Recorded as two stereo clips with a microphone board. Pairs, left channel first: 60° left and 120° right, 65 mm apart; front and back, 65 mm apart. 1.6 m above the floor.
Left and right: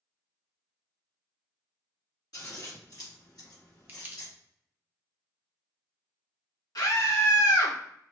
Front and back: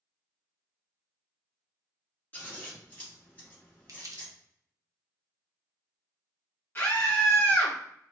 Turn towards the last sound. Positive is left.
turn(degrees=55)